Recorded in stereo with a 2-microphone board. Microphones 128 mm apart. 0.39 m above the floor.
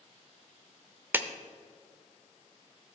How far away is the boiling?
No boiling in this recording.